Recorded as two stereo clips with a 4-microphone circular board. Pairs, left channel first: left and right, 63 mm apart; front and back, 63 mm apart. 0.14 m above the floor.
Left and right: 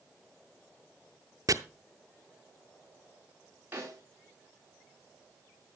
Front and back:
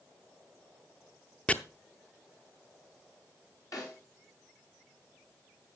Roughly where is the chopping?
Right.